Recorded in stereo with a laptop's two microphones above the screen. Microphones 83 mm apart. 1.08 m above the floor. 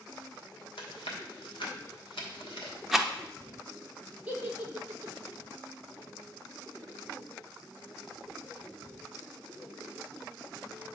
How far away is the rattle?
About 0.6 m.